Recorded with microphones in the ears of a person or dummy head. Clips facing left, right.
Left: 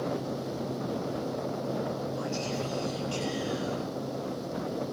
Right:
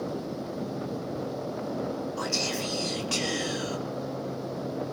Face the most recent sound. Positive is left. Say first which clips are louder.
# right 1 dB
turn(degrees=-75)  # may be behind; listen again after turning